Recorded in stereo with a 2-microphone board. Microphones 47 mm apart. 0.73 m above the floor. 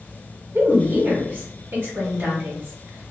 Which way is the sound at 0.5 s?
50° right (ahead or behind).